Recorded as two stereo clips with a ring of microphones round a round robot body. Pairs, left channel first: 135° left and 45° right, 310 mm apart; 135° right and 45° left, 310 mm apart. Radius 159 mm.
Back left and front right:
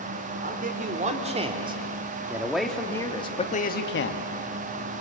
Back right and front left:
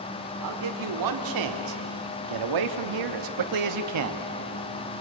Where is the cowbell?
No cowbell in this recording.